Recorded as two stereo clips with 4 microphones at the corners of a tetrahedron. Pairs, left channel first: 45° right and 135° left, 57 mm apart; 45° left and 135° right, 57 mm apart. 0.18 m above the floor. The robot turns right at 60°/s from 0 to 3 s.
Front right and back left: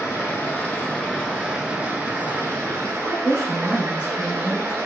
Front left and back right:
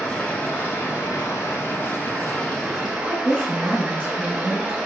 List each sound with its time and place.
0.0 s running water: 30° right, 0.9 m; by 4.9 s 150° left, 0.9 m
3.1 s a woman speaking: 175° right, 1.4 m